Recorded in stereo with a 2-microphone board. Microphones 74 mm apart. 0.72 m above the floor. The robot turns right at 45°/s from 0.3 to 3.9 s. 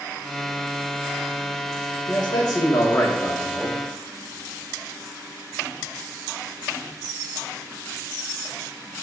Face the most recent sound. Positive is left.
turn(degrees=175)